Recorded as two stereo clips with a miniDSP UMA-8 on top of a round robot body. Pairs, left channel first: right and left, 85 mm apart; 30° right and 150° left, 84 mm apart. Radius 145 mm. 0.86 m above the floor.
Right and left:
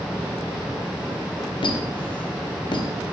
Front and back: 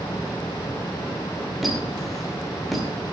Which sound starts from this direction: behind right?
A squeak, at 1.6 s.